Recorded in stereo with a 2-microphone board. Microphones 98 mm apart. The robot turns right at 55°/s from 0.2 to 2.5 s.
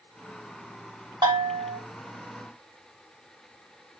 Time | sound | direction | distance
1.2 | a bell | 125° right | 1.7 m